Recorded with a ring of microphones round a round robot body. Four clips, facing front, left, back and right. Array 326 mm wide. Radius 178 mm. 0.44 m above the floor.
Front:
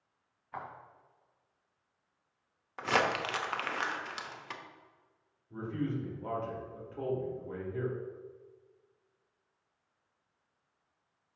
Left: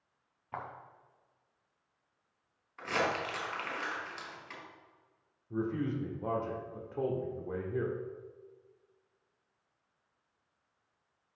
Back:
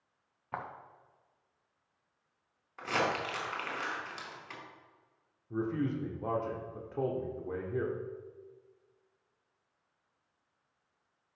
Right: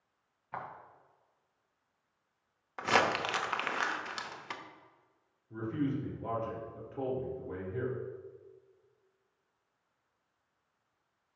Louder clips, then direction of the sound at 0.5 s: Even, back 2 dB; 170° left.